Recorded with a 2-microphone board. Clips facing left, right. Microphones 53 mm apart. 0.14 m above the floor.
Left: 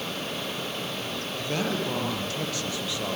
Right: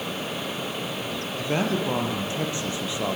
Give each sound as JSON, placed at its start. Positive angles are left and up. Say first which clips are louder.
{"t": 1.4, "sound": "a man speaking", "louder": "right 4 dB", "side_deg": -20, "distance_m": 4.5}